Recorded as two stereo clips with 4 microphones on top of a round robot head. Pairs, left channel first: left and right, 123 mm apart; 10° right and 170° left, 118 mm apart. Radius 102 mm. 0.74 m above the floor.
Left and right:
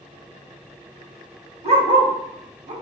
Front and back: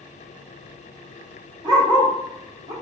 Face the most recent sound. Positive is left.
turn(degrees=-130)